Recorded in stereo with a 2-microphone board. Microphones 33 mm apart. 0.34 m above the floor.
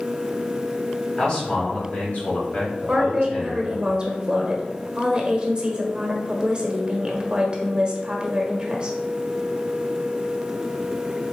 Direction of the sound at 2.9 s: 25° right (ahead or behind).